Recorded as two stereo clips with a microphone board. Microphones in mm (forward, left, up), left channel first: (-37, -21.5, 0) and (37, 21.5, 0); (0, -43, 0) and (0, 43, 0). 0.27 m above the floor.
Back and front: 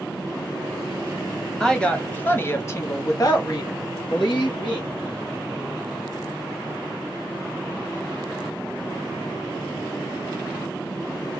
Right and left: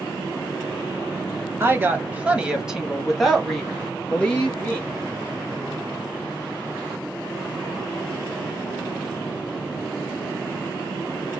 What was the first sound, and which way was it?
A woman speaking, 130° left.